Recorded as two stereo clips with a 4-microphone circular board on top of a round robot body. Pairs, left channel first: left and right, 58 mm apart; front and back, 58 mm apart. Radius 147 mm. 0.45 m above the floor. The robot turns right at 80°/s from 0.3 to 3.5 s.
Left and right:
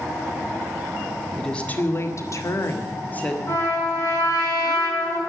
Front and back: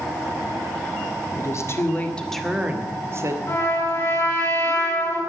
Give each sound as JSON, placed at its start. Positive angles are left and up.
{"t": 1.4, "sound": "a woman speaking", "azimuth_deg": 5, "distance_m": 2.0}
{"t": 3.5, "sound": "a trumpet", "azimuth_deg": 45, "distance_m": 8.0}